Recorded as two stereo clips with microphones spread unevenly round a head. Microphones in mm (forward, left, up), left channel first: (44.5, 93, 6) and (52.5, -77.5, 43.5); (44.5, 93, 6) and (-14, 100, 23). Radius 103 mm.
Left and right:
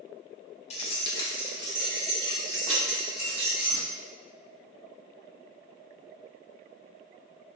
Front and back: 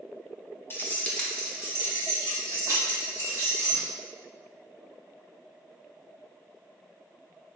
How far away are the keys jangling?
About 0.6 m.